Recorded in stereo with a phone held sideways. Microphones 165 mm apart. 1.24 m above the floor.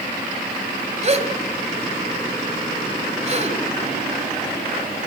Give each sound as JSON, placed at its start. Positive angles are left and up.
{"t": 1.0, "sound": "a gasp", "side_deg": -45, "distance_m": 1.9}